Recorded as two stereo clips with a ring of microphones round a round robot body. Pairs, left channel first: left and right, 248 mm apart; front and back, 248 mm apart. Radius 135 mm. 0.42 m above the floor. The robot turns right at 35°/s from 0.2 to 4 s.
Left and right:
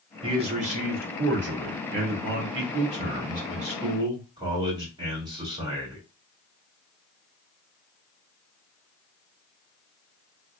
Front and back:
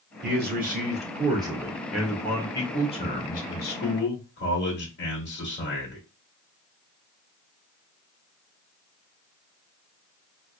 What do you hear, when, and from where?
0.2 s a man speaking: 155° right, 1.9 m; by 6.0 s 20° right, 1.9 m